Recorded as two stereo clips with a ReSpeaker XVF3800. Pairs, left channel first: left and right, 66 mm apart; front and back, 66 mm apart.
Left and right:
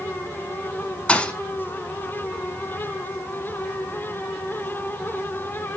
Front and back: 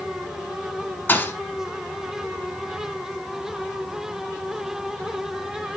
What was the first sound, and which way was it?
A thud, 30° left.